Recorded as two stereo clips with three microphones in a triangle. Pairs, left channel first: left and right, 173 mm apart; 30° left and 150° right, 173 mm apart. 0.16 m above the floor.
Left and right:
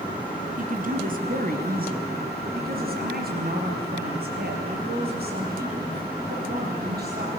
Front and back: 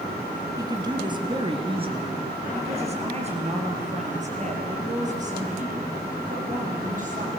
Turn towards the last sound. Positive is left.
turn(degrees=-110)